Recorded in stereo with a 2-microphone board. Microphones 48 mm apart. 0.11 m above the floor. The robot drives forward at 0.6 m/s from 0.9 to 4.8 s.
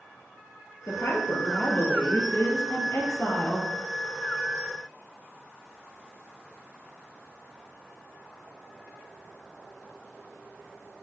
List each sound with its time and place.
0.9 s a woman speaking: 55° left (ahead or behind), 2.5 m; by 3.7 s 45° left (ahead or behind), 3 m